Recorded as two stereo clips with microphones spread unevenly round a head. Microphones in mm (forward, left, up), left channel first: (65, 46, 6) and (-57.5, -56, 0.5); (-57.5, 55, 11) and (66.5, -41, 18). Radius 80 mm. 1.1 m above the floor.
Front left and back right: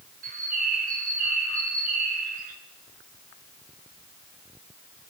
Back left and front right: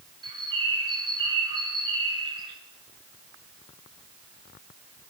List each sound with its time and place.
0.2 s a bird: 100° right, 3 m